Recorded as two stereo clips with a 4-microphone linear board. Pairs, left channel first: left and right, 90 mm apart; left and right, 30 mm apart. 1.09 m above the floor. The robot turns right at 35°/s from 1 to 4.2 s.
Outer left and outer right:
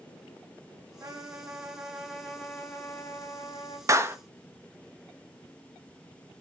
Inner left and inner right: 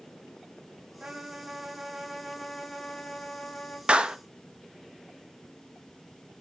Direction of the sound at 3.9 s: 35° right (ahead or behind).